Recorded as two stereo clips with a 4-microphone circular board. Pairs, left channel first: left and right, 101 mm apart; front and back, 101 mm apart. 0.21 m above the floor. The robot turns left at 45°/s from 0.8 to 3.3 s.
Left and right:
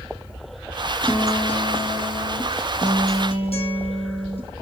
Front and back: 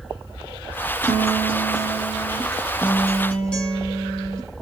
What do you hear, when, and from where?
1.0 s a guitar: 175° right, 7 m; by 4.5 s 80° left, 7 m